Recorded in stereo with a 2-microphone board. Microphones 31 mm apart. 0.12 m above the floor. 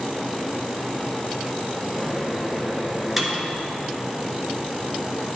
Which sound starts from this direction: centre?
A microwave, at 2.0 s.